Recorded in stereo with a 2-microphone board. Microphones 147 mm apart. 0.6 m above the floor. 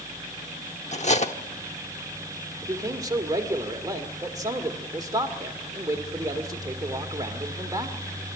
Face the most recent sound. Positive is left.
turn(degrees=-25)  # may be behind; listen again after turning